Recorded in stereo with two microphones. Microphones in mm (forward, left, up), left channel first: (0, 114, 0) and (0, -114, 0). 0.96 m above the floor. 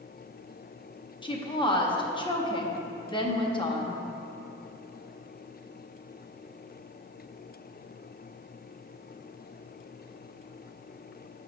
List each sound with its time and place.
1.2 s a woman speaking: 20° left (ahead or behind), 0.7 m